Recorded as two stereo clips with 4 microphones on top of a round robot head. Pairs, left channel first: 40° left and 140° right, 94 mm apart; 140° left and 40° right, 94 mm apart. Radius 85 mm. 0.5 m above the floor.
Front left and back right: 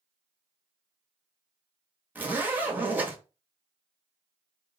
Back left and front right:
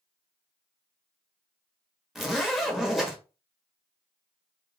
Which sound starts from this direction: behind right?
A zipper, at 2.1 s.